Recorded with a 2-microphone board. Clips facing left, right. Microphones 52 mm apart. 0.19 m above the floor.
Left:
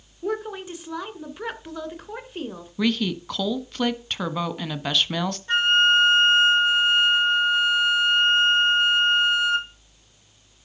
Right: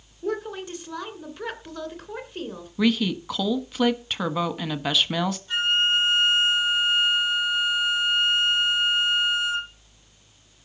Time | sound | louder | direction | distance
0.2 | a woman speaking | left 1 dB | 10° left (ahead or behind) | 2.5 m
2.8 | a woman speaking | right 1 dB | 5° right (ahead or behind) | 1.2 m
5.5 | a flute | left 6 dB | 45° left (ahead or behind) | 2.5 m